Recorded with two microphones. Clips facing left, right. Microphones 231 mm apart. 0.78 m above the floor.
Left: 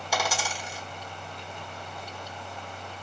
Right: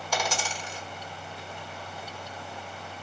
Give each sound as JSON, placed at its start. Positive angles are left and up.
{"t": 0.1, "sound": "a dropped coin", "side_deg": 10, "distance_m": 1.2}